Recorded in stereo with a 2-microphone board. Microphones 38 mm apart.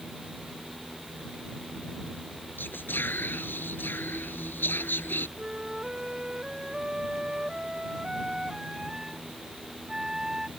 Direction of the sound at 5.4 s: 15° right (ahead or behind).